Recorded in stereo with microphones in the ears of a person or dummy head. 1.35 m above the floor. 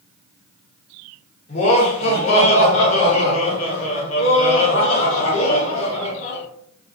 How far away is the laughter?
About 1.0 m.